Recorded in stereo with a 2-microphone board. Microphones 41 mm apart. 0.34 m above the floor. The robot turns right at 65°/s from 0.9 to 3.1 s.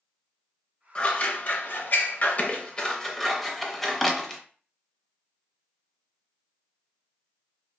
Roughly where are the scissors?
Left.